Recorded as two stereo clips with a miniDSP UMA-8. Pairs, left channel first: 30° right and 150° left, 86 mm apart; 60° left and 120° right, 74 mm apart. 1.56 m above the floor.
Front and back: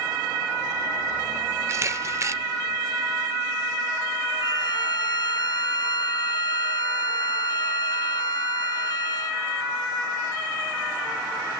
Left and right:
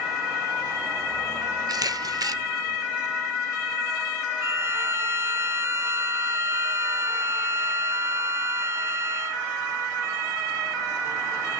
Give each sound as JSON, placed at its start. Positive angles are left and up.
{"t": 1.7, "sound": "a camera shutter", "azimuth_deg": -155, "distance_m": 0.8}
{"t": 4.4, "sound": "a violin", "azimuth_deg": -65, "distance_m": 0.6}